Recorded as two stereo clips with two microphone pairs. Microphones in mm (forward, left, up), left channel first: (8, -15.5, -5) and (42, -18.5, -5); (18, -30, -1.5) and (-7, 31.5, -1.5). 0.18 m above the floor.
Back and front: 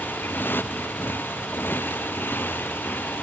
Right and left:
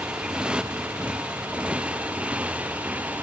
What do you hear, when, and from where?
0.0 s a motorcycle: 175° right; by 3.2 s straight behind